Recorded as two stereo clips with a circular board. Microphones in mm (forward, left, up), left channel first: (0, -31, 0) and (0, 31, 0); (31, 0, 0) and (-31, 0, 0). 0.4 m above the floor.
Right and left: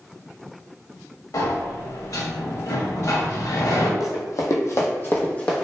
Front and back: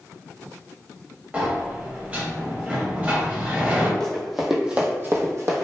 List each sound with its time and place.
1.3 s a sliding door: 115° right, 0.5 m
4.0 s running footsteps: 80° right, 0.7 m; by 5.7 s 165° right, 0.7 m